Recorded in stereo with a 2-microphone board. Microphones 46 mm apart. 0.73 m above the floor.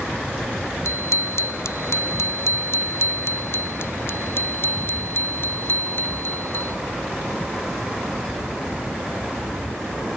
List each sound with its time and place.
0.8 s a bicycle bell: 85° left; by 6.8 s 50° left (ahead or behind)